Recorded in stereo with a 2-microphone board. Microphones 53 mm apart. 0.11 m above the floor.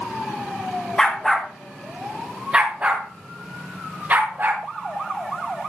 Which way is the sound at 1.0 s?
15° left (ahead or behind).